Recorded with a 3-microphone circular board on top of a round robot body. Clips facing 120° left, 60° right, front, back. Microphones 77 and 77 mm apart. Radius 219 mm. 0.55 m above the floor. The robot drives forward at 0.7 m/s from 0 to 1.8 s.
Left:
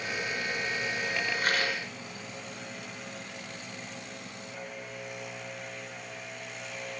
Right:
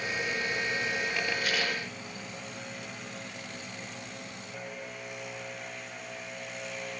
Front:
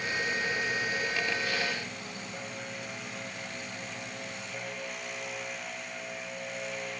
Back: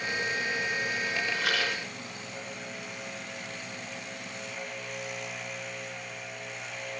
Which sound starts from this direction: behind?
A rattle, at 1.3 s.